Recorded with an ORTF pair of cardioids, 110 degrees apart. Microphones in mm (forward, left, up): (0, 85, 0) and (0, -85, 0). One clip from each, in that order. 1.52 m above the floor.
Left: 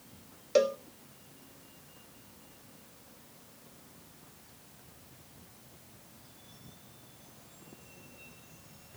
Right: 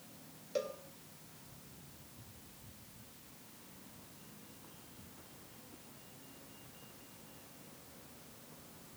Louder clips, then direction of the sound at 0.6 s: Left 13 dB; 55° left.